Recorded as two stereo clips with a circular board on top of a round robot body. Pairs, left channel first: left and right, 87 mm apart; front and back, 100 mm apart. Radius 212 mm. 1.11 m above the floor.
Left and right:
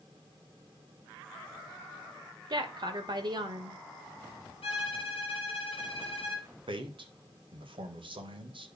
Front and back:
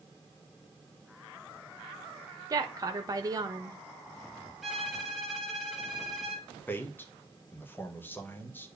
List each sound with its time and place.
2.5 s a woman speaking: 125° right, 1.5 m
4.6 s a violin: 95° left, 0.7 m
6.7 s a man speaking: 70° right, 1.8 m